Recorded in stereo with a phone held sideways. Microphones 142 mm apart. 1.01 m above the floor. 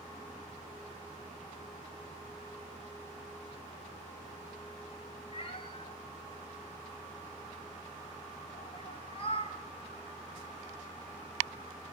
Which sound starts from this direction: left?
A cat meowing, at 5.3 s.